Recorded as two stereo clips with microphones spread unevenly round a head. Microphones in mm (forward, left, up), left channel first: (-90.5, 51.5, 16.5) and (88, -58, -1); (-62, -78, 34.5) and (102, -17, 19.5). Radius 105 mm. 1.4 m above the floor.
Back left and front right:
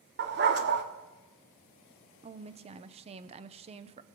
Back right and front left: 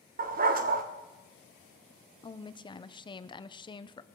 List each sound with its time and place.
0.2 s a dog barking: 5° right, 1.2 m
2.2 s a woman speaking: 95° right, 0.8 m